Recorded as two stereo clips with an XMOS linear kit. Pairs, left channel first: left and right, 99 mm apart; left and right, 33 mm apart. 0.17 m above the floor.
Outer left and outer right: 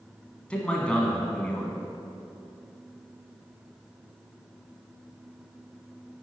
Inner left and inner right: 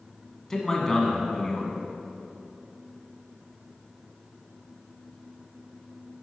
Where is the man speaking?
10° left (ahead or behind), 1.4 m.